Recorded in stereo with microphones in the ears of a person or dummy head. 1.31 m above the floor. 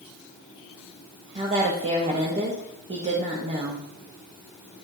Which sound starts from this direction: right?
A woman speaking, at 1.4 s.